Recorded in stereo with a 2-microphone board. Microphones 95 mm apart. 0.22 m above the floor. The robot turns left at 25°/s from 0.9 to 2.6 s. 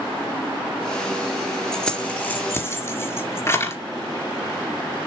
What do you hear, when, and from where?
1.7 s keys jangling: 5° left (ahead or behind), 2 m; by 3.8 s 25° left (ahead or behind), 2 m